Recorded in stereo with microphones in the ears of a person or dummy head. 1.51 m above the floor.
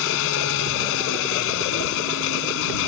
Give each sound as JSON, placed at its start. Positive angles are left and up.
{"t": 0.0, "sound": "an engine running", "side_deg": 70}